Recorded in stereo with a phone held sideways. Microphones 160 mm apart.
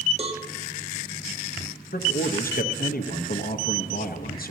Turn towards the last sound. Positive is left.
turn(degrees=65)  # may be behind; listen again after turning